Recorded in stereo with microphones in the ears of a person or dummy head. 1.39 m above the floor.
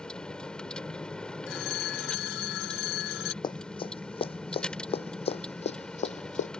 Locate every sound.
0.0 s a vehicle: centre (ahead or behind)
1.5 s a phone ringing: 75° left (ahead or behind)
3.4 s running footsteps: 20° left (ahead or behind); by 6.5 s 35° left (ahead or behind)